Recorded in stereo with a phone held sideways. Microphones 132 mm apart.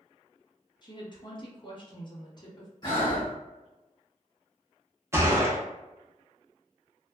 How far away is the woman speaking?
About 0.9 m.